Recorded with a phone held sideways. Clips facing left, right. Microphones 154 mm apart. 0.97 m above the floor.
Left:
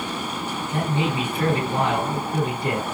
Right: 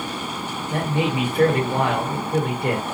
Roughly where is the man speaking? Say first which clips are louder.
Right 2 dB; right.